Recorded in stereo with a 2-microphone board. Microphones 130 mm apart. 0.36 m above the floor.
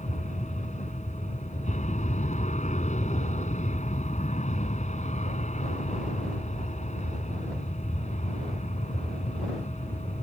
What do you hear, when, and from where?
0.0 s an aircraft: 70° left (ahead or behind); by 10.2 s 65° left (ahead or behind)